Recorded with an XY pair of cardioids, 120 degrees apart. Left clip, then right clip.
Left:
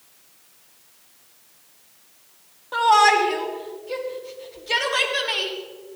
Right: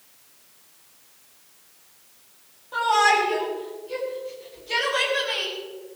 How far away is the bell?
I don't hear a bell.